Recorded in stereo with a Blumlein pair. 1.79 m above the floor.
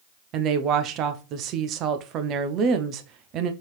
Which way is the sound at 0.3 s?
35° right.